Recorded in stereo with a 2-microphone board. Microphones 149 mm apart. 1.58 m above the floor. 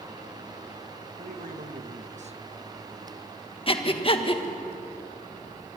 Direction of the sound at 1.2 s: 75° right (ahead or behind).